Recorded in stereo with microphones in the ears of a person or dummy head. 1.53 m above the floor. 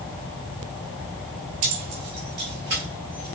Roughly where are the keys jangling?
Right.